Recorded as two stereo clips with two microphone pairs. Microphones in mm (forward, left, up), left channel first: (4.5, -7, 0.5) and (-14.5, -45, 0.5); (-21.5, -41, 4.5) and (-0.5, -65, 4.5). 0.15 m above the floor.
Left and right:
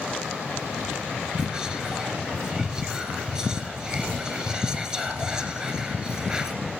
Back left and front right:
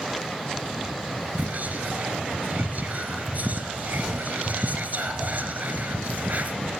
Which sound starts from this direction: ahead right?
Whispering, at 1.4 s.